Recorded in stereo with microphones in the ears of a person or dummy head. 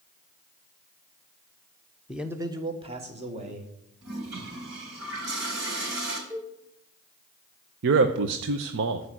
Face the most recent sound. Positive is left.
turn(degrees=-65)  # may be behind; listen again after turning